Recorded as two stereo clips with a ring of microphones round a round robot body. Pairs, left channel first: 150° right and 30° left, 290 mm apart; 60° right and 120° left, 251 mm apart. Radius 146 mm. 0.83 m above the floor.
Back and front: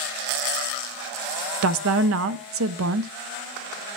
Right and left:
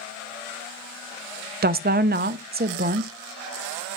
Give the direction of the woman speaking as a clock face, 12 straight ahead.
10 o'clock.